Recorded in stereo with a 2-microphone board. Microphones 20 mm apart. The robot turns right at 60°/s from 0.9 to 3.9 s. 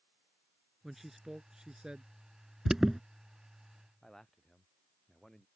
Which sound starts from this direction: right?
An alarm, at 2.6 s.